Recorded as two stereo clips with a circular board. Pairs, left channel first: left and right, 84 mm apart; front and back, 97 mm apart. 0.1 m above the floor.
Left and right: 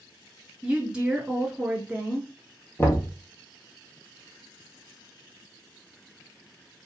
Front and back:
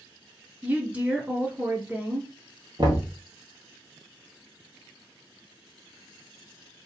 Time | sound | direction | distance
0.6 | a woman speaking | 140° right | 1.5 m
2.8 | knocking | 145° left | 1.7 m